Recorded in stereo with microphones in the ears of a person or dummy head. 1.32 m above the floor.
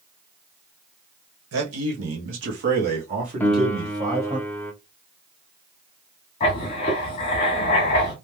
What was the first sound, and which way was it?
A man speaking, 80° right.